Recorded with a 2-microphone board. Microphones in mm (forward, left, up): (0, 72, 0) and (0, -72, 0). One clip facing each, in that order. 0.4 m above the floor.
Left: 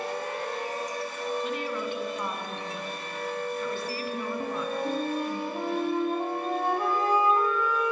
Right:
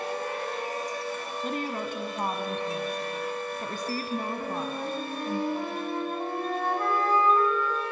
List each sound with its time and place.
1.4 s a woman speaking: 40° right (ahead or behind), 3 m
4.4 s a flute: 15° left (ahead or behind), 3.5 m